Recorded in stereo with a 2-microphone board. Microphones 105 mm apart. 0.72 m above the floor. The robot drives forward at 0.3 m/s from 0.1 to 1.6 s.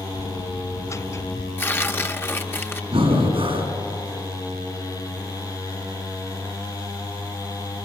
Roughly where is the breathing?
Right.